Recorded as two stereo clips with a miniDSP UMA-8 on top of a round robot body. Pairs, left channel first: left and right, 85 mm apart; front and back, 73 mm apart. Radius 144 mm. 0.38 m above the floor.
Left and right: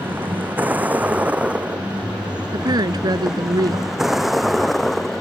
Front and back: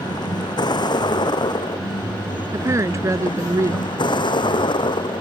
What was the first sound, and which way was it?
A vehicle, 20° right.